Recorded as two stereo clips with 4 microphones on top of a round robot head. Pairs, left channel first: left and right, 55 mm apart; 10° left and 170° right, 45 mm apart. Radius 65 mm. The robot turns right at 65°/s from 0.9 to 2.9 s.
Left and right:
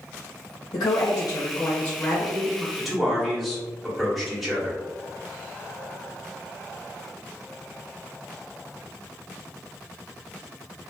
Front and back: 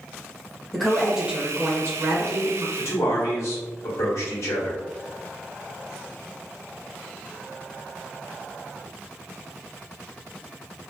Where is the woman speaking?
100° left, 0.7 m; by 2.7 s 150° right, 0.7 m.